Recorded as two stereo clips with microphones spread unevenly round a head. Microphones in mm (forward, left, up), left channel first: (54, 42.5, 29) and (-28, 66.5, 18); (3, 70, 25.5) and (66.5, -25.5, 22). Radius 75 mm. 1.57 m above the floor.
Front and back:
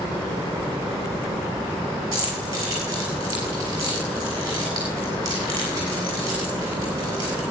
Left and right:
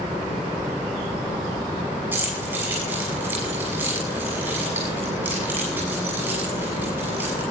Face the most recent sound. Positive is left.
turn(degrees=-135)